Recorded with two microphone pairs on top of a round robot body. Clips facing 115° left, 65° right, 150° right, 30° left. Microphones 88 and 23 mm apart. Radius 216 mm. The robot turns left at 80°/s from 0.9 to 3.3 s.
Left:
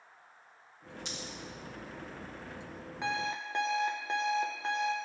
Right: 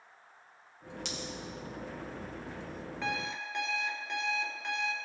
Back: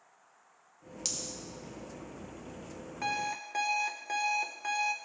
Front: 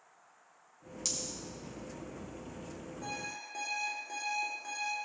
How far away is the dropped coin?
About 1.6 m.